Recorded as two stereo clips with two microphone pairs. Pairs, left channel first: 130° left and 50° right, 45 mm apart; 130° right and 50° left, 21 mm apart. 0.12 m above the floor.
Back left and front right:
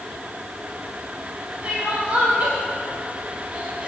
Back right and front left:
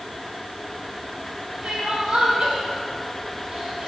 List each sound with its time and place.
1.6 s crying: 10° left, 1.6 m